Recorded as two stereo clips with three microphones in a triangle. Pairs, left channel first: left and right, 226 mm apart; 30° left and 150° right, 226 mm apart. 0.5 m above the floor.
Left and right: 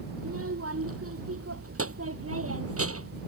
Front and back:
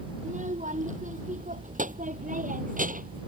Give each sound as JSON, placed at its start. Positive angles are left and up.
{"t": 0.2, "sound": "a child speaking", "azimuth_deg": -95}